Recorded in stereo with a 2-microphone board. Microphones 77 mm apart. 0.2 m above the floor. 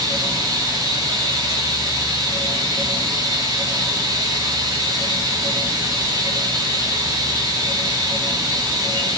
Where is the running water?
45° right (ahead or behind), 9.5 m.